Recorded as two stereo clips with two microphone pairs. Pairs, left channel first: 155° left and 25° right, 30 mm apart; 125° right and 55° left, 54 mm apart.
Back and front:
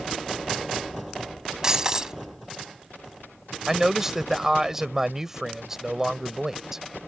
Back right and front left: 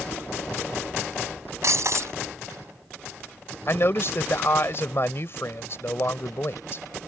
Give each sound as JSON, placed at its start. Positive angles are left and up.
{"t": 1.6, "sound": "breaking glass", "azimuth_deg": 40}
{"t": 3.7, "sound": "a man speaking", "azimuth_deg": -100}